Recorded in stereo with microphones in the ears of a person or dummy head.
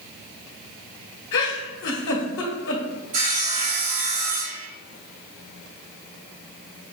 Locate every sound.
1.3 s a giggle: 75° left (ahead or behind), 1.2 m
3.1 s sawing: 40° right (ahead or behind), 0.6 m